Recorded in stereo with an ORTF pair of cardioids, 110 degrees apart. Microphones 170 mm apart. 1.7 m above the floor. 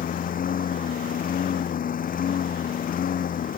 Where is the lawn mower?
50° left.